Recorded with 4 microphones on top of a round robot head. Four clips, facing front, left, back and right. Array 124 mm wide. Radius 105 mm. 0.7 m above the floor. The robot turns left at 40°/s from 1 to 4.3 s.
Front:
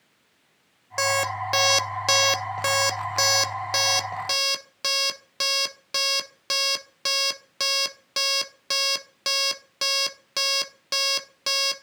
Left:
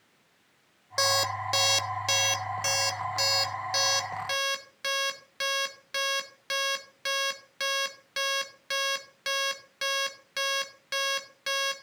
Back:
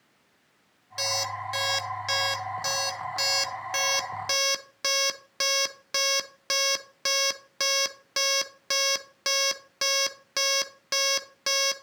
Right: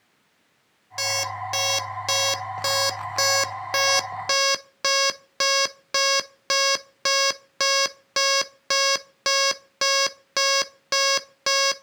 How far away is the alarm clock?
About 0.6 m.